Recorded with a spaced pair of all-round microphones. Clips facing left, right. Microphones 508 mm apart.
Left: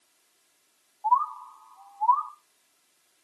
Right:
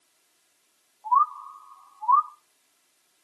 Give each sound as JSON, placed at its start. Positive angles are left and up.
{"t": 1.0, "sound": "a bird", "side_deg": 10, "distance_m": 0.8}